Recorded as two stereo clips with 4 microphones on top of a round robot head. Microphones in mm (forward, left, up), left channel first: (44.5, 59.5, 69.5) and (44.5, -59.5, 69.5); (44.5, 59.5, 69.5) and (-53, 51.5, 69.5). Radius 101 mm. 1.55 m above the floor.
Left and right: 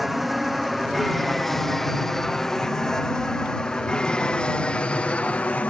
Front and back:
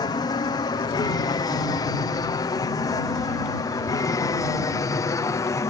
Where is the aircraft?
Straight ahead; by 5.7 s 20° left.